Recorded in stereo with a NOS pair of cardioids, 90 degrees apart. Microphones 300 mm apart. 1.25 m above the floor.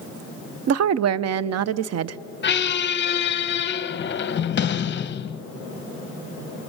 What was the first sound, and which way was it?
A woman speaking, 60° right.